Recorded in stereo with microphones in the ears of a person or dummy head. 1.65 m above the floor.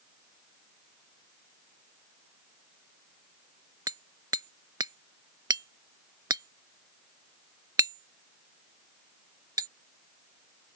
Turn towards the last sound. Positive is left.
turn(degrees=-15)  # may be behind; listen again after turning